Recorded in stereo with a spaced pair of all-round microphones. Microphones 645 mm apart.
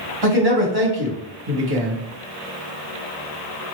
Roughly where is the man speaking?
Right.